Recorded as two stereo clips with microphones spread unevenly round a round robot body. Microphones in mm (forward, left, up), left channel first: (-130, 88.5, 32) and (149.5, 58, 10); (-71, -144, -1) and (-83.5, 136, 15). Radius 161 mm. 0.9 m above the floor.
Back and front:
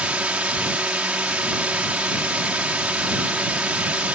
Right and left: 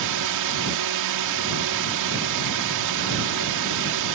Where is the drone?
80° left.